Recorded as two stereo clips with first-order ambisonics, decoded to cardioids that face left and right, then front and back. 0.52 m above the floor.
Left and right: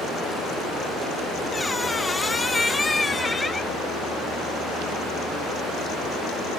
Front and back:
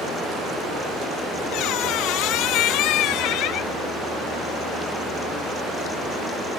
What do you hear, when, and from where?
1.5 s a squeak: 10° left, 0.6 m